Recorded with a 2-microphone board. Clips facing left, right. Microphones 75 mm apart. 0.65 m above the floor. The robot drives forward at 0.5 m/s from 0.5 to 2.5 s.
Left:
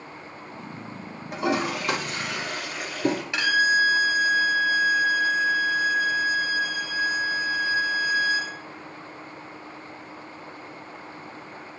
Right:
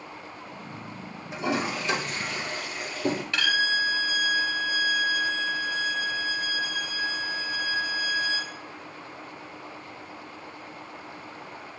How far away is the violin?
About 0.7 m.